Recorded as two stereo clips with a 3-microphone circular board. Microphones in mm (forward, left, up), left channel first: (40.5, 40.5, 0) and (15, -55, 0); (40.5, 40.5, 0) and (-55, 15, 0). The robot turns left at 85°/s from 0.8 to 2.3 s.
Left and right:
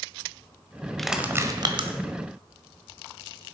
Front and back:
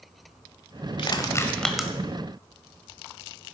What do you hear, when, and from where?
1.0 s crushing: 10° right, 1.2 m; by 1.9 s 85° right, 1.2 m